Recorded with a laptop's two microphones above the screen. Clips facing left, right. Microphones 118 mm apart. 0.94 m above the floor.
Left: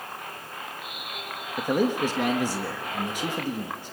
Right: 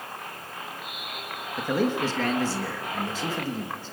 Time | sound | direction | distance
1.6 | a man speaking | 15° left (ahead or behind) | 1.4 m